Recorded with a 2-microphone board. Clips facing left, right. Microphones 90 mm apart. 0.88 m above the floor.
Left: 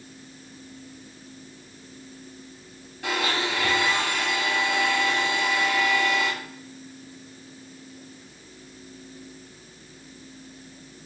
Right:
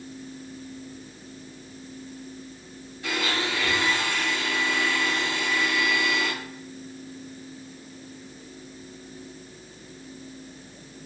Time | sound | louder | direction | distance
3.0 | a blender | left 2 dB | 75° left (ahead or behind) | 2 m